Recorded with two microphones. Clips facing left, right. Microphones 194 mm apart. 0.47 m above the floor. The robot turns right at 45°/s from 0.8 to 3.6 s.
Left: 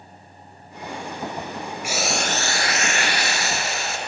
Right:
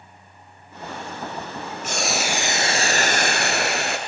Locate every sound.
1.8 s boiling: 170° left, 1.9 m; by 4.0 s 110° right, 1.9 m